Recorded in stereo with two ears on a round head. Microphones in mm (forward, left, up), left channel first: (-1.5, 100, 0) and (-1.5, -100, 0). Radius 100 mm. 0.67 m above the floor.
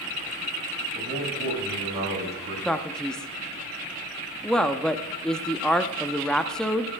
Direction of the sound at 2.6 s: 5° left (ahead or behind).